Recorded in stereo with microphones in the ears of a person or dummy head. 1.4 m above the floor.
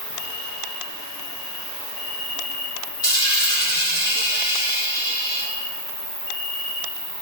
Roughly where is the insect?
Left.